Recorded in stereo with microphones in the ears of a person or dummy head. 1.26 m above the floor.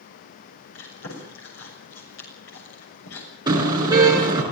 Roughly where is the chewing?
Left.